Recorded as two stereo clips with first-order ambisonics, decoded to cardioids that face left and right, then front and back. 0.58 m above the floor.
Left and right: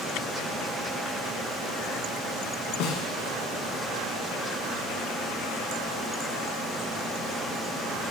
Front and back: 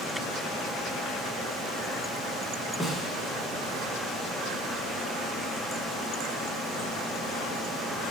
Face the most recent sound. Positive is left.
turn(degrees=90)